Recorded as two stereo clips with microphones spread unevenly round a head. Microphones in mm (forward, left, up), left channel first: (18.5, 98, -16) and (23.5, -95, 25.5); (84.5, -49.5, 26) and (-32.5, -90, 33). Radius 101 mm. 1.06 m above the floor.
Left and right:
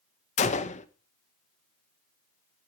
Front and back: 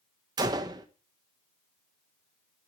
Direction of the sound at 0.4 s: 135° left.